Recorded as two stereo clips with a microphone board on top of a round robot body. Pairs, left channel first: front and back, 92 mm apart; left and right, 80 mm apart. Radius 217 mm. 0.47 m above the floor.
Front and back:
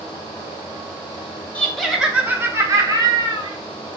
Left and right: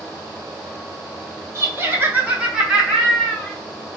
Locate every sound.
1.6 s laughter: 70° right, 1.1 m; by 3.6 s 170° left, 1.4 m